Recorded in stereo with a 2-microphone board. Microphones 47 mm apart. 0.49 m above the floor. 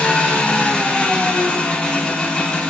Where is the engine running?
20° left (ahead or behind), 0.7 m.